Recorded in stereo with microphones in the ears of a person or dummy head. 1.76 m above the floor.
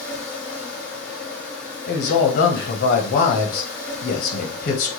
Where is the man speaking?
45° left (ahead or behind), 0.7 m.